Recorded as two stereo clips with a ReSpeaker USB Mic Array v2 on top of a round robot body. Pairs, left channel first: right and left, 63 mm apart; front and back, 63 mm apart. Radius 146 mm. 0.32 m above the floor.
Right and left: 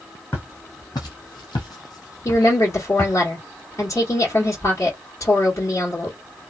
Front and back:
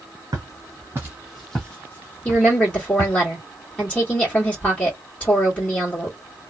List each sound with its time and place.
0.3 s footsteps: 145° right, 0.9 m; by 3.2 s 30° right, 1.3 m
2.2 s a woman speaking: 70° right, 1.7 m